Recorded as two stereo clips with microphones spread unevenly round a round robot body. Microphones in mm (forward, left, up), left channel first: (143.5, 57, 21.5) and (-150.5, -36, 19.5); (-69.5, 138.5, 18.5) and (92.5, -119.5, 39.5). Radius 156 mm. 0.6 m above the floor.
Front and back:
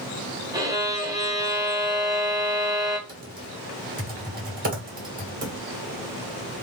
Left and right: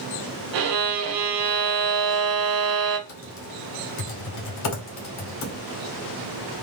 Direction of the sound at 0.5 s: 85° right.